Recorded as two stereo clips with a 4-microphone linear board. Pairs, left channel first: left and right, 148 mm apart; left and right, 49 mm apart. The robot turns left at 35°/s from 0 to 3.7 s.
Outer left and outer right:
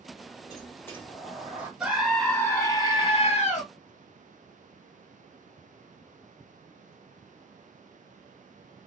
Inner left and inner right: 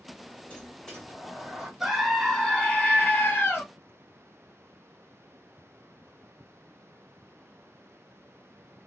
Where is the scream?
170° right, 0.7 m; by 3.6 s 130° left, 0.7 m.